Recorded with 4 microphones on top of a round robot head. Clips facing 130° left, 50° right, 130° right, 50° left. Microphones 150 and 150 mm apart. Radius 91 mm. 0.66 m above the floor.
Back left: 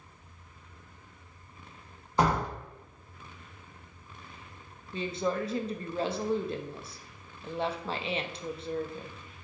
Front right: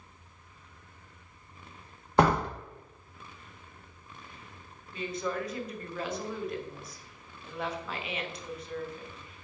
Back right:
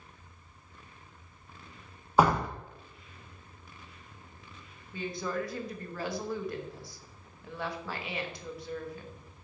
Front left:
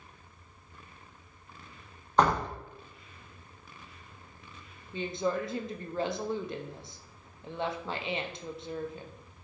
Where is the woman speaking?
95° left, 0.6 m.